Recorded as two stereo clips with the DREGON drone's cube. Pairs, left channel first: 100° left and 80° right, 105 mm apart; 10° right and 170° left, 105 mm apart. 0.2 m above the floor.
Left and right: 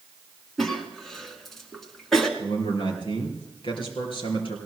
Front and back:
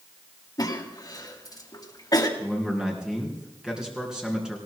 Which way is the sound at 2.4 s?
85° left.